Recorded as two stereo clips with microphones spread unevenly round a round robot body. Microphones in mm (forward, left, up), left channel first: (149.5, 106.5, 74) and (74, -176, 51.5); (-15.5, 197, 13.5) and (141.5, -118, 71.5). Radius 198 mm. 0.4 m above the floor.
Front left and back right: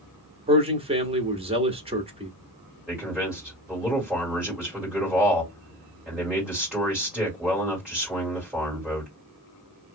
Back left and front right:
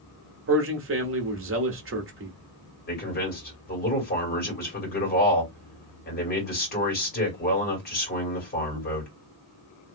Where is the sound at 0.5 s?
85° right, 1.1 m.